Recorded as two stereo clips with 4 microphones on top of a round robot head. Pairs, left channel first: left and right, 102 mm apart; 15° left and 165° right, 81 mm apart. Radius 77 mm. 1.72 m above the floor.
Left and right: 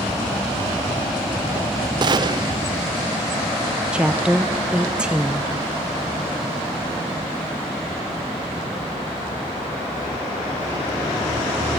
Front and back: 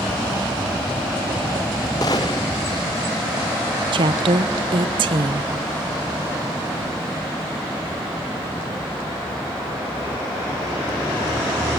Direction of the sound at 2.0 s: 45° right.